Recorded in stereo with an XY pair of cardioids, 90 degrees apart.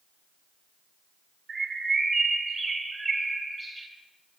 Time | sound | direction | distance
1.5 | a bird | 40° right | 3 m